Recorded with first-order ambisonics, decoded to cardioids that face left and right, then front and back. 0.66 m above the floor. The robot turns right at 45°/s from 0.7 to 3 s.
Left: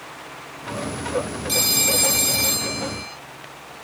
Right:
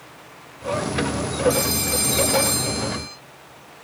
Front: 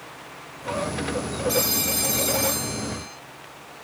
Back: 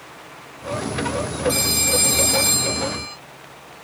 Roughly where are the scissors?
No scissors in this recording.